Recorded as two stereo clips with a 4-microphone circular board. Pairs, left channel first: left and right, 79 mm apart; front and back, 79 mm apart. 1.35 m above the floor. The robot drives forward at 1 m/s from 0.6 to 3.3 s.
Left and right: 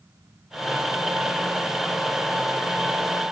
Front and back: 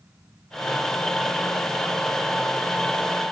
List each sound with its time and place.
Only background noise.